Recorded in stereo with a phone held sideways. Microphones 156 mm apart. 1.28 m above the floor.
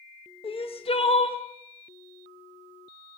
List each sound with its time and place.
0.4 s crying: 40° left (ahead or behind), 0.5 m